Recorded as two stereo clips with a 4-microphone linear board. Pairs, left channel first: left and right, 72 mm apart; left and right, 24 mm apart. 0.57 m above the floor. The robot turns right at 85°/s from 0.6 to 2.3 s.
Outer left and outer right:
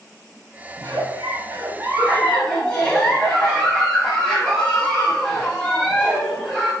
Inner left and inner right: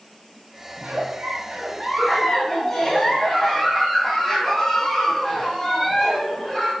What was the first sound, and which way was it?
A giggle, 120° right.